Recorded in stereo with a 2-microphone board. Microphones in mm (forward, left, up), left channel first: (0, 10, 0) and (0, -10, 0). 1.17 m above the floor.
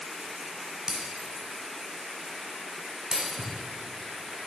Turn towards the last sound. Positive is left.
turn(degrees=-60)  # may be behind; listen again after turning